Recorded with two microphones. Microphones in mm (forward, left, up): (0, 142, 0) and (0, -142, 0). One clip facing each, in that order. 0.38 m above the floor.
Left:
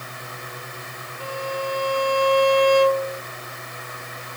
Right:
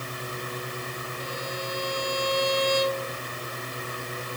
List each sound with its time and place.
1.2 s a violin: 70° left (ahead or behind)